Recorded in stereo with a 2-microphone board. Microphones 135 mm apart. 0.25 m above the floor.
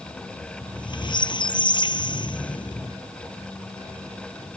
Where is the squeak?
35° left (ahead or behind).